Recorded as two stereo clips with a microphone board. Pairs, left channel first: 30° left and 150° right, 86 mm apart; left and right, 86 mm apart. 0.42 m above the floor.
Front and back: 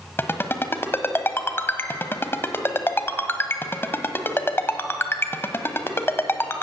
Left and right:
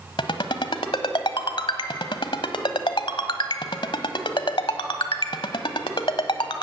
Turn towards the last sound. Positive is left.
turn(degrees=90)